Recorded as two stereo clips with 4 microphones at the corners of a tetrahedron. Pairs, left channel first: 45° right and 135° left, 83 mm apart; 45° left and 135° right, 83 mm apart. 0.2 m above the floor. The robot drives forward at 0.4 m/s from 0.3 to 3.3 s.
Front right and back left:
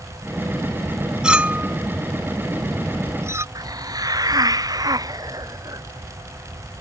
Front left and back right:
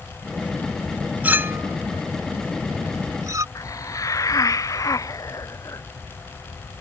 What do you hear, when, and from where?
1.2 s a clink: 160° right; by 3.5 s 175° right
3.5 s a hiss: 95° left